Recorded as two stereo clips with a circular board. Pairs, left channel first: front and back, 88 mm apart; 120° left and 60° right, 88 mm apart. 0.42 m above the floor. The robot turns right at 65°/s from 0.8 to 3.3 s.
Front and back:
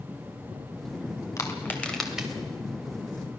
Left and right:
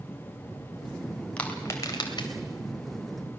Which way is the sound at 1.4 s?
45° left.